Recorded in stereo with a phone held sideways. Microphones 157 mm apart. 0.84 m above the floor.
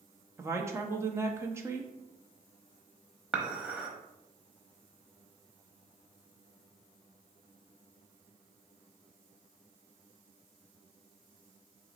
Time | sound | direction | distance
0.4 | a woman speaking | 15° right (ahead or behind) | 0.6 m
3.3 | dishes clattering | 5° right (ahead or behind) | 0.9 m